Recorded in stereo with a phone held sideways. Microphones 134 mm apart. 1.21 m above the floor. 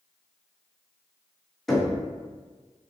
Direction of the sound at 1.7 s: Centre (ahead or behind).